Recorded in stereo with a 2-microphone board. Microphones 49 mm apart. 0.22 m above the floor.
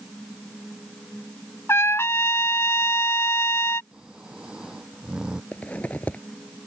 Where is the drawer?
I don't hear a drawer.